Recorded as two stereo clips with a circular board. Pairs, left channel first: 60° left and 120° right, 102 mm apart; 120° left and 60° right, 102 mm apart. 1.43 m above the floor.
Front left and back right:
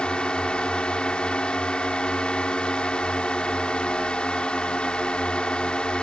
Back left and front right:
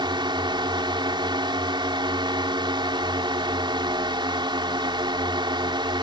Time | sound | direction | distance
0.0 | a drone | 20° right | ?